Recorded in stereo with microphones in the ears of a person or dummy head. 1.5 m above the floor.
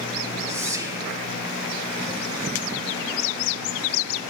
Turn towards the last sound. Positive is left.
turn(degrees=-20)  # may be behind; listen again after turning